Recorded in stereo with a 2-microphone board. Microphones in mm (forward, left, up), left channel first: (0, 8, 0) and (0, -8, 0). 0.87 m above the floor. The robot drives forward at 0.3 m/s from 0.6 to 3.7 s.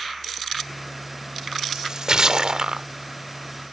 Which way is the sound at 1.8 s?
45° right (ahead or behind).